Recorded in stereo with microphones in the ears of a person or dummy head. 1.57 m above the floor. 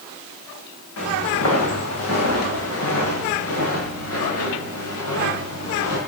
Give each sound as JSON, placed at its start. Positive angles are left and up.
{"t": 1.0, "sound": "footsteps", "side_deg": 75, "distance_m": 6.5}